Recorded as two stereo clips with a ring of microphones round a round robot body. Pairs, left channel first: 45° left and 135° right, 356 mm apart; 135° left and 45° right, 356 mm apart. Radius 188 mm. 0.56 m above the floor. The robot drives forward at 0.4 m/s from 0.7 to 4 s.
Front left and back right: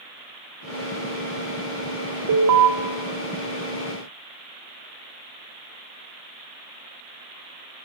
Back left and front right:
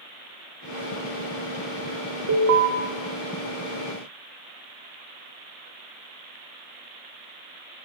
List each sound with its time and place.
2.3 s an alarm: 90° right, 0.6 m; by 2.7 s 110° right, 0.6 m